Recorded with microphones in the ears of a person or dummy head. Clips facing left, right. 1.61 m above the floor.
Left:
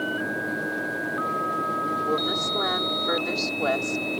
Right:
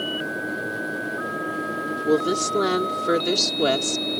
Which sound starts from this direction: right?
A woman speaking, at 2.1 s.